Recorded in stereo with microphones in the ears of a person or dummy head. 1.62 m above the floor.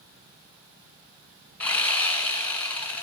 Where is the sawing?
10° left (ahead or behind), 1.2 m.